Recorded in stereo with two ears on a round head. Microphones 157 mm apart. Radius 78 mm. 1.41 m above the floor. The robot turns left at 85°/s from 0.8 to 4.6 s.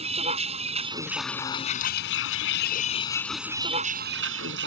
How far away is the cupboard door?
No cupboard door in this recording.